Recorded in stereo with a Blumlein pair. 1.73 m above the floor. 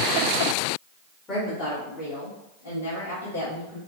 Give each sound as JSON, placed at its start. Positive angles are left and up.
{"t": 1.3, "sound": "a woman speaking", "azimuth_deg": 20, "distance_m": 1.5}